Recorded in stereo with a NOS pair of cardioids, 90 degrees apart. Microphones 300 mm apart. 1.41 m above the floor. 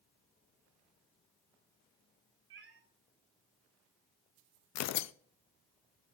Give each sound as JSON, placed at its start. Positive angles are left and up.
{"t": 2.5, "sound": "a cat meowing", "azimuth_deg": -40, "distance_m": 2.5}
{"t": 4.8, "sound": "tearing paper", "azimuth_deg": 60, "distance_m": 0.5}